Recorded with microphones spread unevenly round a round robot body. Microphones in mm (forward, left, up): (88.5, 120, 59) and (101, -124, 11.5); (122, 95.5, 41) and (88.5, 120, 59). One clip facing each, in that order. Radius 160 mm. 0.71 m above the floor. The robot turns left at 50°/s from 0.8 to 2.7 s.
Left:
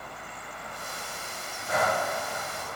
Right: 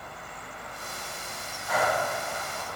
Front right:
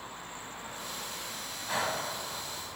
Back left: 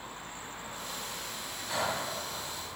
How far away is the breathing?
About 4.5 m.